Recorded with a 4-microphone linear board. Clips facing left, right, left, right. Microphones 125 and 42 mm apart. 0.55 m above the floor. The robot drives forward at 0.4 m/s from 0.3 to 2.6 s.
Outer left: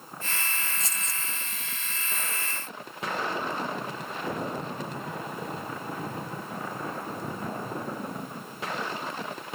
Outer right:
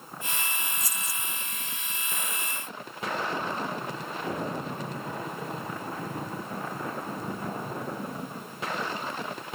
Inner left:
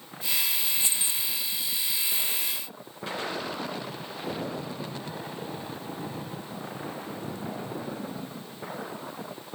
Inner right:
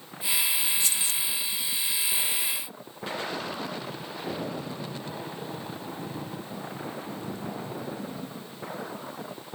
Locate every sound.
0.8 s keys jangling: 25° left (ahead or behind), 0.5 m; by 1.2 s 20° left (ahead or behind), 0.6 m